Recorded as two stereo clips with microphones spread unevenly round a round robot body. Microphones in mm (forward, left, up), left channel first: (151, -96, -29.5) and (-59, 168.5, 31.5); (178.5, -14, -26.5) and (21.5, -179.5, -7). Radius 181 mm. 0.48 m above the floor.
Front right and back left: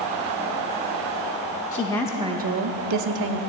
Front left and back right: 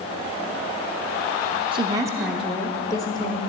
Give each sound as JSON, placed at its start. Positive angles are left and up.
{"t": 1.7, "sound": "a woman speaking", "azimuth_deg": -75, "distance_m": 0.7}